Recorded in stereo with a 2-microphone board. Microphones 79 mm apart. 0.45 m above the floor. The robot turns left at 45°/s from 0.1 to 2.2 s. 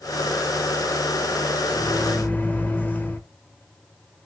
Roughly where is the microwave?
Centre.